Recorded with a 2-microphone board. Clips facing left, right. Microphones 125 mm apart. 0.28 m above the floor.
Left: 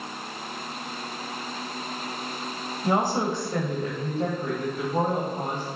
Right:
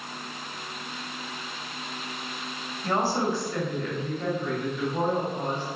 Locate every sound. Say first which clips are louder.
2.8 s a woman speaking: left 1 dB; 15° left (ahead or behind), 1.5 m; by 5.7 s 45° left (ahead or behind), 2 m